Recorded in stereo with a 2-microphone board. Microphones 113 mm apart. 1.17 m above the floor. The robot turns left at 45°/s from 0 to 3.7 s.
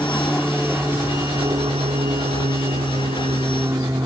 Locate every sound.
0.0 s an aircraft: 20° left; by 4.1 s 145° right